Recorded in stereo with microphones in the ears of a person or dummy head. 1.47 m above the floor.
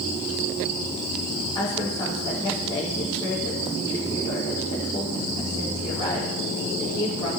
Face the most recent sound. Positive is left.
turn(degrees=20)  # may be behind; listen again after turning